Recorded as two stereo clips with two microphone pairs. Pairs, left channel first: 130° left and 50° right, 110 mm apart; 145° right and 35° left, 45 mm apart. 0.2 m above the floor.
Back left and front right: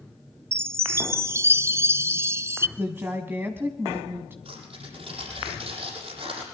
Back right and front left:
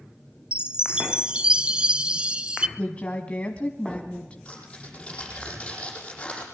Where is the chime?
5° right, 0.5 m.